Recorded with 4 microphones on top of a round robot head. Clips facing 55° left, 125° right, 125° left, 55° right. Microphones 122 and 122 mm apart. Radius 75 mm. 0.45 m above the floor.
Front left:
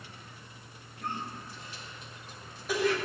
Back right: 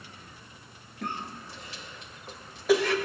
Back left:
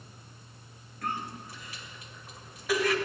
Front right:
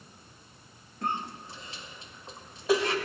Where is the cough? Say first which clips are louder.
Back right 1 dB, front right 2 dB; 115° right, 1.9 m.